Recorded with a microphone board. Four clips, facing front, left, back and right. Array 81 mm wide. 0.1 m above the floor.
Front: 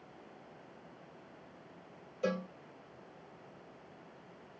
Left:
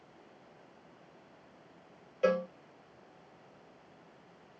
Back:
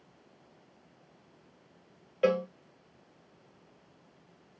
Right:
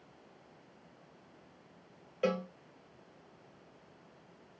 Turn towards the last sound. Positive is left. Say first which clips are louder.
# left 4 dB, back 9 dB
turn(degrees=-175)